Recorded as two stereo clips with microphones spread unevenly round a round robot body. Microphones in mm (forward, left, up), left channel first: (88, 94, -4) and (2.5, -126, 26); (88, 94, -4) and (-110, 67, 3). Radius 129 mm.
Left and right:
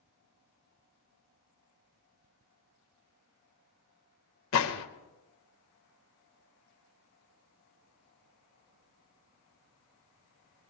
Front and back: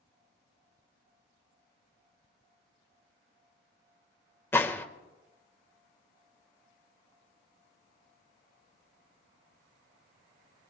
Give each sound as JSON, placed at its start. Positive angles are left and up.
{"t": 4.5, "sound": "a gunshot", "azimuth_deg": 85, "distance_m": 1.5}